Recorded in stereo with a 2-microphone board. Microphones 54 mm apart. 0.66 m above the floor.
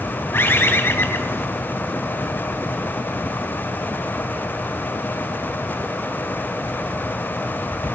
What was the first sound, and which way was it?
A bird, 45° left (ahead or behind).